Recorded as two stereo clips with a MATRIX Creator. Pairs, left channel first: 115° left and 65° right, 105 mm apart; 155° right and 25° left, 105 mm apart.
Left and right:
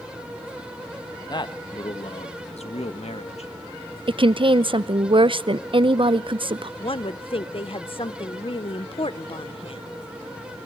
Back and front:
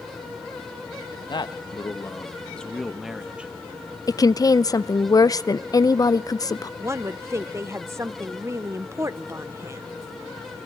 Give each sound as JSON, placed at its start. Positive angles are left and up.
{"t": 1.3, "sound": "a man speaking", "azimuth_deg": 160, "distance_m": 1.4}
{"t": 4.1, "sound": "a woman speaking", "azimuth_deg": -105, "distance_m": 0.6}
{"t": 6.8, "sound": "a woman speaking", "azimuth_deg": 85, "distance_m": 0.8}